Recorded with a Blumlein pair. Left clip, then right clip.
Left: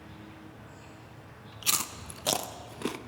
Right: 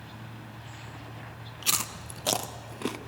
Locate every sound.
0.0 s an insect: 35° right, 3 m
1.6 s chewing: 5° right, 0.7 m